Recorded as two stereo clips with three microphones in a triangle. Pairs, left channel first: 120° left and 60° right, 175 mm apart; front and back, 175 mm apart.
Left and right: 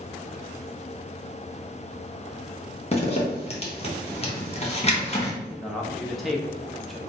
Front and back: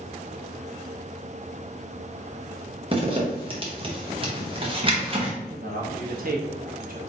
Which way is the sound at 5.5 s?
150° right.